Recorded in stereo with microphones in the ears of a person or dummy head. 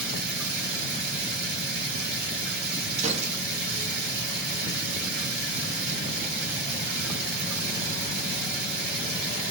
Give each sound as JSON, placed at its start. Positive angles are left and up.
{"t": 0.0, "sound": "running water", "side_deg": -65, "distance_m": 1.2}
{"t": 3.0, "sound": "a gunshot", "side_deg": -30, "distance_m": 0.8}